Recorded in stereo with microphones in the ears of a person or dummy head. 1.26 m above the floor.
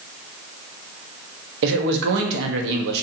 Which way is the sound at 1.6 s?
70° right (ahead or behind).